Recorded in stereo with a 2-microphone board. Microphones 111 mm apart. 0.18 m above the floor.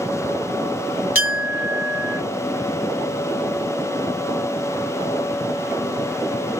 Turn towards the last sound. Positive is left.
turn(degrees=-15)  # may be behind; listen again after turning